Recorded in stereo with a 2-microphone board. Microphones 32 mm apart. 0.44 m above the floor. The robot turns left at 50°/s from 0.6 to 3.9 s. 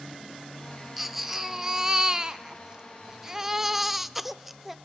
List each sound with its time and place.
1.0 s a baby crying: 5° right (ahead or behind), 0.7 m